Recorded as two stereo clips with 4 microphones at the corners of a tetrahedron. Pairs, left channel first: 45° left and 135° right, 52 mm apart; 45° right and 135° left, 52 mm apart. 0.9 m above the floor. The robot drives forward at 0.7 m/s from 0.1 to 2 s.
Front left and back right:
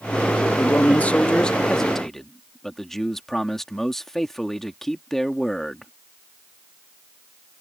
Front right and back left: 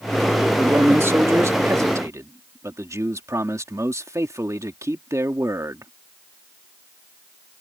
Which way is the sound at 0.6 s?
90° left.